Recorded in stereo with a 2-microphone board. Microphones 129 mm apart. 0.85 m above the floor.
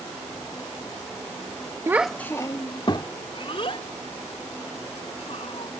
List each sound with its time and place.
1.9 s a child speaking: 25° right (ahead or behind); by 5.7 s 55° left (ahead or behind)